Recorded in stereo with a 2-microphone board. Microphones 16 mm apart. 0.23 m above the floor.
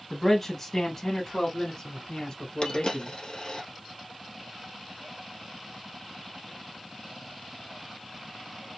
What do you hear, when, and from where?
0.1 s a man speaking: 10° left (ahead or behind), 1.2 m; by 3.2 s 40° left (ahead or behind), 2.5 m
2.6 s a dropped coin: 60° left (ahead or behind), 1.9 m